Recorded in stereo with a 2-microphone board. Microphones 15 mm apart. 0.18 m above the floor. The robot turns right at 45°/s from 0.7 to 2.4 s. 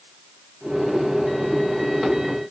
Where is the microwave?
No microwave in this recording.